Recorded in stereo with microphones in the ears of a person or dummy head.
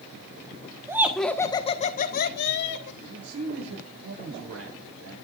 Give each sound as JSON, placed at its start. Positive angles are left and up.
{"t": 0.9, "sound": "laughter", "side_deg": -20, "distance_m": 1.4}
{"t": 3.0, "sound": "a man speaking", "side_deg": -85, "distance_m": 9.5}